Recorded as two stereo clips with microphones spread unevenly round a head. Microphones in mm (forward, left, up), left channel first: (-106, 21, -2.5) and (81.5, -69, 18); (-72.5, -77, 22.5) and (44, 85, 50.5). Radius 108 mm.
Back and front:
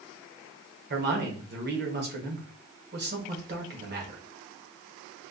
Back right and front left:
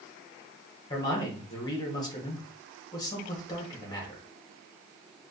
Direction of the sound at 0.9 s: 60° right.